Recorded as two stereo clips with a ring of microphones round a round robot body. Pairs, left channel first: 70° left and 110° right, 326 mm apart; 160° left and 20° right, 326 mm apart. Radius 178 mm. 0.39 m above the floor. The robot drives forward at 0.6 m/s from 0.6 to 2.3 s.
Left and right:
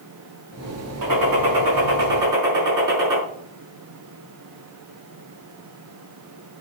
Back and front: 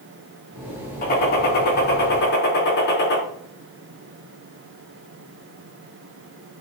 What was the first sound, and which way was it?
A gunshot, 140° right.